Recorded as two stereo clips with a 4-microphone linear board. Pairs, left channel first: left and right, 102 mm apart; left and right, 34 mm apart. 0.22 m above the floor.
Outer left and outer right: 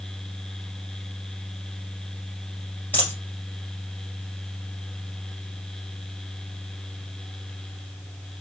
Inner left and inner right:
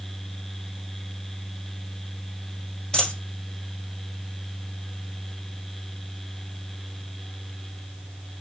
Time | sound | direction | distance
2.9 | a dropped coin | 20° left (ahead or behind) | 2 m